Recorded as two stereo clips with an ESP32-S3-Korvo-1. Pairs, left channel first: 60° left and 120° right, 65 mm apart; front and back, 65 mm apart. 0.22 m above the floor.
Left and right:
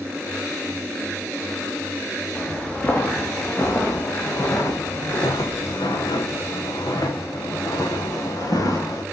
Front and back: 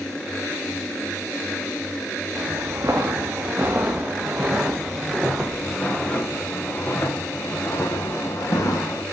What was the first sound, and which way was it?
Footsteps, 130° left.